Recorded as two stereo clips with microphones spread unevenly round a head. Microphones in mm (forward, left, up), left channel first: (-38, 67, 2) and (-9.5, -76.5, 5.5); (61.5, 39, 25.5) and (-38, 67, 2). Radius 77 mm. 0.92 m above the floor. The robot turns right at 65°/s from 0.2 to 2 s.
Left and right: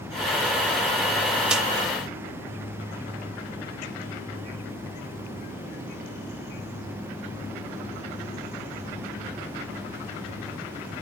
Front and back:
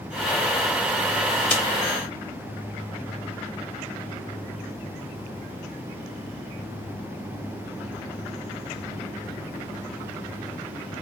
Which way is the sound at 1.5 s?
5° right.